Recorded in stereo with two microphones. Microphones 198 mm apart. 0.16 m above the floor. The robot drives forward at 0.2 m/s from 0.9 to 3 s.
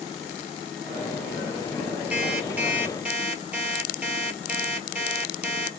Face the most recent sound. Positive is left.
turn(degrees=-5)  # may be behind; listen again after turning